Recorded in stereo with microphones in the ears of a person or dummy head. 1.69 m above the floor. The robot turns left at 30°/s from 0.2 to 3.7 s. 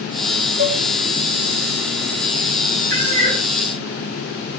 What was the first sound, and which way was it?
Dishes clattering, 50° right (ahead or behind).